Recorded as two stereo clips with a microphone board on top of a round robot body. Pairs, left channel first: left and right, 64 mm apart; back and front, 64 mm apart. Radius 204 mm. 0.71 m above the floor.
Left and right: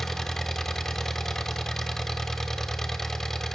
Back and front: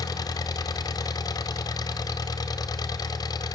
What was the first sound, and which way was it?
An engine running, 175° left.